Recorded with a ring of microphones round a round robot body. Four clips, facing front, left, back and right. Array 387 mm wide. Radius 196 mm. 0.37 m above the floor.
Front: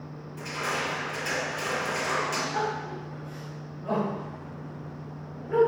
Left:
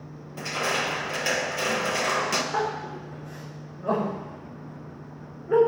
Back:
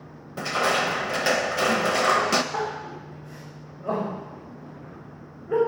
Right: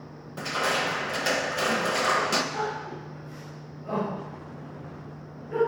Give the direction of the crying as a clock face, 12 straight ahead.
8 o'clock.